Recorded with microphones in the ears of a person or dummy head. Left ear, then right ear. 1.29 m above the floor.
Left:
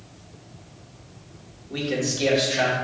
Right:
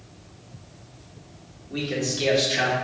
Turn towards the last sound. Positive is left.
turn(degrees=-15)  # may be behind; listen again after turning